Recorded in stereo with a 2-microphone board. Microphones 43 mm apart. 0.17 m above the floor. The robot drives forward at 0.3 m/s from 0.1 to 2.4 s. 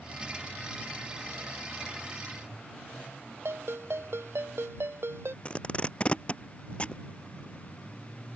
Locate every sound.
3.5 s a ringtone: 65° right (ahead or behind)
5.5 s tape being pulled: 25° left (ahead or behind)